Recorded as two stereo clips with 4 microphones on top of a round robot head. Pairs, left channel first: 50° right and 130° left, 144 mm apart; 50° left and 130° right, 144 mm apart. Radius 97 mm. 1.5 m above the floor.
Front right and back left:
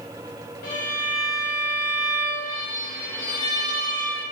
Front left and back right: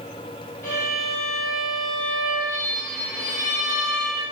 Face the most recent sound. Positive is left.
turn(degrees=-20)